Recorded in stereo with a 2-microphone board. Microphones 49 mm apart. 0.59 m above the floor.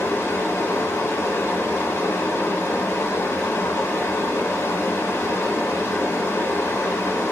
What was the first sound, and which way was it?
Running water, 75° left (ahead or behind).